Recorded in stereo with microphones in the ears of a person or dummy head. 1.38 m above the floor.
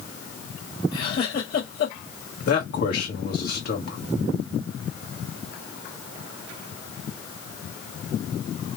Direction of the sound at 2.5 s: 55° left (ahead or behind).